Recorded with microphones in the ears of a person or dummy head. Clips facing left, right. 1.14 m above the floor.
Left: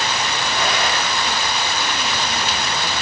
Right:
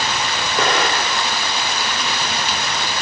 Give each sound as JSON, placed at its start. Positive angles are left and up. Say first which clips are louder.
{"t": 0.6, "sound": "an explosion", "louder": "right 4 dB", "side_deg": -50, "distance_m": 1.6}